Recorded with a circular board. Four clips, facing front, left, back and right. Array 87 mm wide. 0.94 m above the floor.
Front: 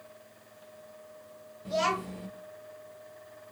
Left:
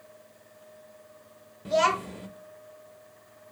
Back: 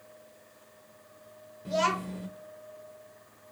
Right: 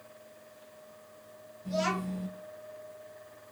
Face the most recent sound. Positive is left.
turn(degrees=95)